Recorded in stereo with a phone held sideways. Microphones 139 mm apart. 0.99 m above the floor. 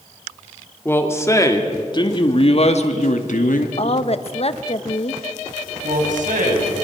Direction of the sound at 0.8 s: 15° left (ahead or behind).